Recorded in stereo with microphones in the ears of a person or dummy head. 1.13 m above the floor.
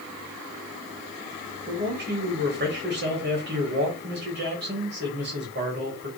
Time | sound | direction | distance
1.7 | a man speaking | 55° right (ahead or behind) | 1.1 m